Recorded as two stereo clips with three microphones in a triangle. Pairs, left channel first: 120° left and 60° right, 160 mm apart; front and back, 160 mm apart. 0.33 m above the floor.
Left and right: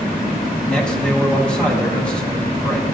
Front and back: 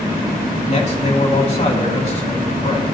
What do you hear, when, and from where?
0.7 s a man speaking: 35° left, 2 m